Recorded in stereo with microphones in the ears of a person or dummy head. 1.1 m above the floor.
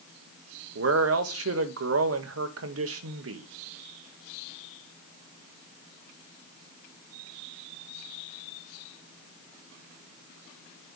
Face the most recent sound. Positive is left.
turn(degrees=-70)  # may be behind; listen again after turning